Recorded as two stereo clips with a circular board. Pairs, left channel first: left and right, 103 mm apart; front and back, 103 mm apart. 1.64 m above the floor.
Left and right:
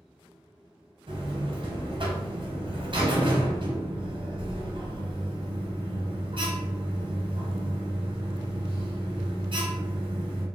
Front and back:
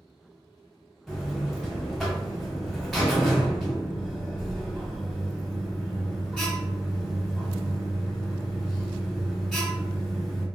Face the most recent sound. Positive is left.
turn(degrees=-85)